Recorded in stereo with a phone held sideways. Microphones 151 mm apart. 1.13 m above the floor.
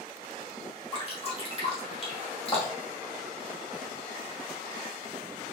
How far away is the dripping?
About 1.8 m.